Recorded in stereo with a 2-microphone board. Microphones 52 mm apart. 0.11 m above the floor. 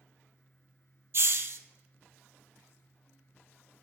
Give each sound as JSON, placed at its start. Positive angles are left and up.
{"t": 1.1, "sound": "a hiss", "side_deg": -50, "distance_m": 0.5}